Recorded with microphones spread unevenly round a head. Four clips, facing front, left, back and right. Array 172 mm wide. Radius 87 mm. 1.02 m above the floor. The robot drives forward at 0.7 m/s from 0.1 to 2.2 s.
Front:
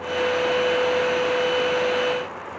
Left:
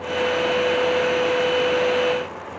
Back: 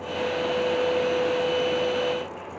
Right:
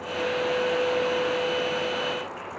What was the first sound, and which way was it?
Only background noise.